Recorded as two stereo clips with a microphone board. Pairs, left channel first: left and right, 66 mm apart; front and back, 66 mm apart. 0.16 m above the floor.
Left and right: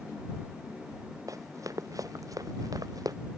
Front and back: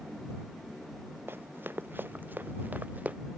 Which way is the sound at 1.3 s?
125° right.